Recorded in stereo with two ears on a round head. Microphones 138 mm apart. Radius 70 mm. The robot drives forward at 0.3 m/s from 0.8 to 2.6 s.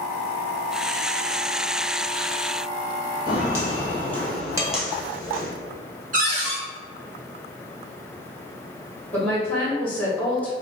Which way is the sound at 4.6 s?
20° right (ahead or behind).